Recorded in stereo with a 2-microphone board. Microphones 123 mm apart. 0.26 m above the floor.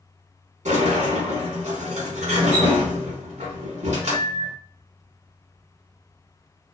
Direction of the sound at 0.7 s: 65° right (ahead or behind).